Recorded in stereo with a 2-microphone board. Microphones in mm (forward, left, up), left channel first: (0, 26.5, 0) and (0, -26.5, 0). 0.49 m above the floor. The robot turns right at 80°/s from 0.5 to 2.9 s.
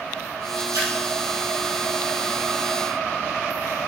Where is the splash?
80° right, 2 m; by 0.9 s 70° right (ahead or behind), 2 m.